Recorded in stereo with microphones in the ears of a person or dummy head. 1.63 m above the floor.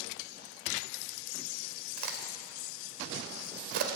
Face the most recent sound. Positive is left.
turn(degrees=-50)  # may be behind; listen again after turning